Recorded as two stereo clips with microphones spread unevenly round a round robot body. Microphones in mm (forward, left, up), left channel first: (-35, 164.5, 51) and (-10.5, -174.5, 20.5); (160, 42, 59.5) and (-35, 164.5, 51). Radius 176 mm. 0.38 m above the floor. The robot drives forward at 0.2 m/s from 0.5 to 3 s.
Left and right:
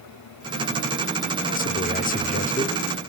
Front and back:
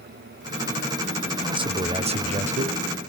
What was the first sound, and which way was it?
A man speaking, 130° left.